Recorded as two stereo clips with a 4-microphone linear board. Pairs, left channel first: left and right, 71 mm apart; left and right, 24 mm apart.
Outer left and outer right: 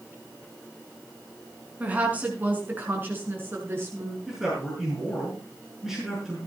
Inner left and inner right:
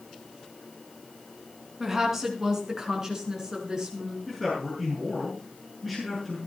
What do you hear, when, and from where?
1.8 s a woman speaking: 20° right (ahead or behind), 4 m; by 4.2 s 35° right (ahead or behind), 5 m
4.3 s a man speaking: 5° right (ahead or behind), 7 m